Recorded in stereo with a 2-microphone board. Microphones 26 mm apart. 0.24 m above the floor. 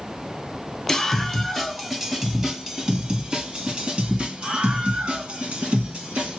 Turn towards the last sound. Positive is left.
turn(degrees=-55)  # may be behind; listen again after turning